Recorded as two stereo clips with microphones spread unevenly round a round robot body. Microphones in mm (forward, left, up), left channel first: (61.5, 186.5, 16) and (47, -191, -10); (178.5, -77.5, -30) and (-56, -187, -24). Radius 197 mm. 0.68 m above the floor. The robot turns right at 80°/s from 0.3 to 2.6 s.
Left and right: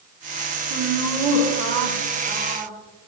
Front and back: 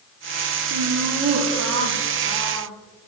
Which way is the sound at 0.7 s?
145° left.